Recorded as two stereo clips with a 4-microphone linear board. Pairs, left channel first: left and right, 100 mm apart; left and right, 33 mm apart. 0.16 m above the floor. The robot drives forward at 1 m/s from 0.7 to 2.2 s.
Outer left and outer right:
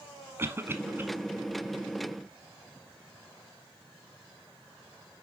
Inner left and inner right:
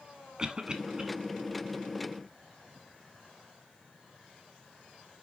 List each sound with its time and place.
0.4 s a cough: 25° right (ahead or behind), 1.1 m; by 1.0 s 20° right (ahead or behind), 1.2 m